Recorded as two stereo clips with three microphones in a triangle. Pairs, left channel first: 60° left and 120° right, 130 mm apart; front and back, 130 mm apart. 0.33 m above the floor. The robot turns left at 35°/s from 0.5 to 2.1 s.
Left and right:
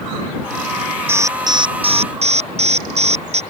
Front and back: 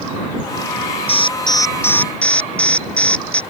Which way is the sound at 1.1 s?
45° right.